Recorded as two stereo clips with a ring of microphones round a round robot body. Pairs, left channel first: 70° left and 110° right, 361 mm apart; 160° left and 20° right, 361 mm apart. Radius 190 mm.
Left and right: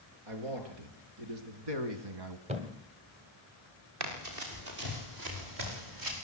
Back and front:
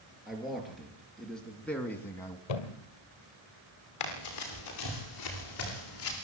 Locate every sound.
0.3 s a man speaking: 110° right, 5 m; by 2.4 s 120° right, 2.0 m
2.5 s a thud: 175° left, 1.8 m
4.0 s running footsteps: 160° right, 8 m; by 6.2 s 150° right, 8.5 m